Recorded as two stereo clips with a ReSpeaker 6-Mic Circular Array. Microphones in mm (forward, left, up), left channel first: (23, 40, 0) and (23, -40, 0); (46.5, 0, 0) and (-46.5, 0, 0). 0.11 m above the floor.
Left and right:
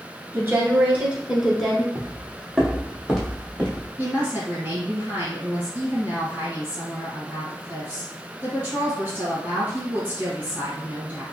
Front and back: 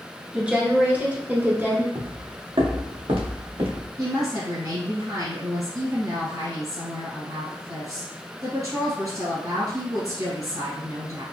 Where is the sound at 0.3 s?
110° right, 1.2 m; by 1.9 s 170° left, 1.2 m.